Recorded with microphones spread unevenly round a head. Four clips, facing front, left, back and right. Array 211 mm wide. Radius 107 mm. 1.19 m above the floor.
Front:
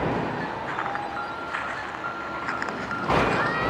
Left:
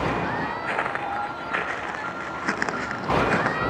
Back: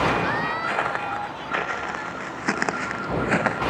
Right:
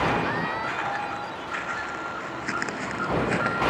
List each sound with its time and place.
0.7 s footsteps: 145° left; by 3.6 s 175° right